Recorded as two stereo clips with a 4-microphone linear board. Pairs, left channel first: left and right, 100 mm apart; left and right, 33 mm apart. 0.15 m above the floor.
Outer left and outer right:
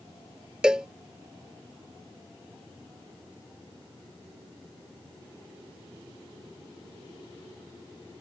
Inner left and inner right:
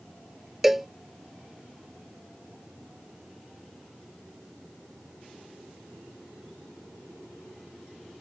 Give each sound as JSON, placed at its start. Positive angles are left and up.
{"t": 0.6, "sound": "a cowbell", "side_deg": -10}